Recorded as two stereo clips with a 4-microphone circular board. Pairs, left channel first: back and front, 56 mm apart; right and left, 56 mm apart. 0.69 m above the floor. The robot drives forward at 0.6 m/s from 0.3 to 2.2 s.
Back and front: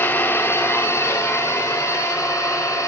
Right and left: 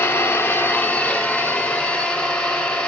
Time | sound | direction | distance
0.0 | an engine running | 135° right | 0.9 m